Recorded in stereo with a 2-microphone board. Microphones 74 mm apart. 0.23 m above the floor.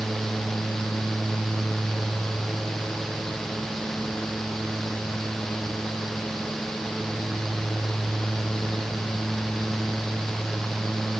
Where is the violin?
No violin in this recording.